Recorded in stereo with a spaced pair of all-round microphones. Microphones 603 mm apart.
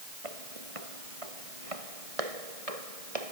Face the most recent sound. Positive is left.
turn(degrees=-70)  # may be behind; listen again after turning